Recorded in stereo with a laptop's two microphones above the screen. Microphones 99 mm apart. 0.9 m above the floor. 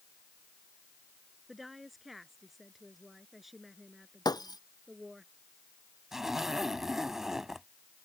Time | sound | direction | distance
1.5 | a woman speaking | centre (ahead or behind) | ?
4.2 | breaking glass | 45° left (ahead or behind) | ?
6.1 | a zipper | 5° right (ahead or behind) | ?